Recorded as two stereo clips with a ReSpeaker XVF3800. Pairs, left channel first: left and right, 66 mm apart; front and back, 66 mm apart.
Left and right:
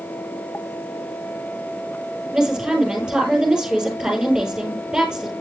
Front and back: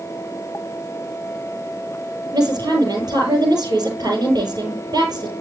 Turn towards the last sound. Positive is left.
turn(degrees=-170)